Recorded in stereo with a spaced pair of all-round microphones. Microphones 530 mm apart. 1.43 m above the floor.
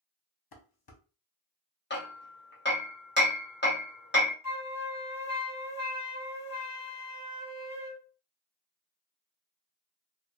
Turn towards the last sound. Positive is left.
turn(degrees=-35)  # may be behind; listen again after turning